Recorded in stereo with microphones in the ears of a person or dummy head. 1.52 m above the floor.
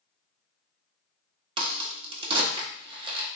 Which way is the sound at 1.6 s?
30° right (ahead or behind).